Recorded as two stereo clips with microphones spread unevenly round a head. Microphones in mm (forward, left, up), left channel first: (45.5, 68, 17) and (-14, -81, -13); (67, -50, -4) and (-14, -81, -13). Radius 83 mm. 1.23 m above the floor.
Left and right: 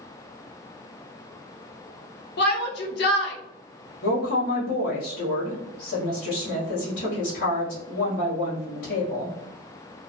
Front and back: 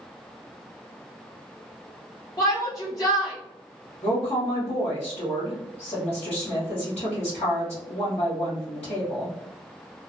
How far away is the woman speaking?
About 1.1 m.